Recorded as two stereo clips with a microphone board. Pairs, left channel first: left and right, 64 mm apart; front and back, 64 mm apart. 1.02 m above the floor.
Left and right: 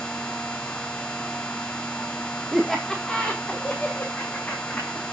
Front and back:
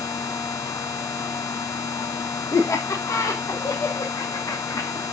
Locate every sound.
2.5 s laughter: straight ahead, 1.2 m; by 5.0 s 25° left, 2.5 m